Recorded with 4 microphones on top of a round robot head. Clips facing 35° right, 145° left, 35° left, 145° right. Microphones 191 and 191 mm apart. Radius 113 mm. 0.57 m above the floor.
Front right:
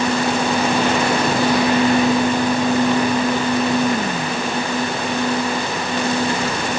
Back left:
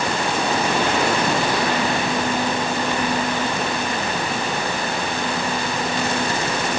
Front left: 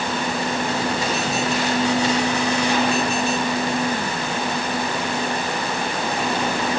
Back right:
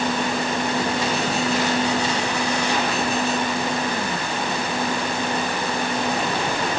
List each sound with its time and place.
Only background noise.